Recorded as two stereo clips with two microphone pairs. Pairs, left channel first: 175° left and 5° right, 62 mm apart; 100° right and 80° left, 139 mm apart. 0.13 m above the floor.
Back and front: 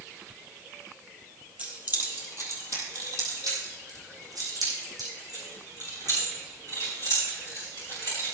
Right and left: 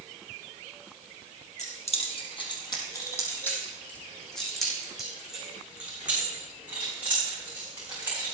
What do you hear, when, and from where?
1.6 s keys jangling: 70° right, 3 m; by 8.2 s 5° left, 10.5 m